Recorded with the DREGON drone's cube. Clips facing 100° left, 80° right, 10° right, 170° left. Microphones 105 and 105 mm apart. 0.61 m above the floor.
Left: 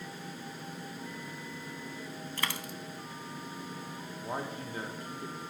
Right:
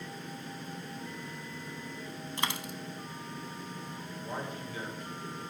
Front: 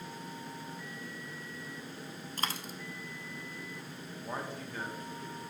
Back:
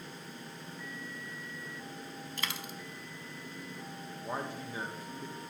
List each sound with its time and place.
2.4 s a dropped coin: 20° right, 0.6 m
4.2 s a man speaking: 100° left, 1.0 m